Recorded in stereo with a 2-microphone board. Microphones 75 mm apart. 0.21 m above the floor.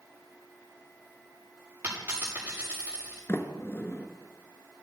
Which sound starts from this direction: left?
A sliding door, at 3.3 s.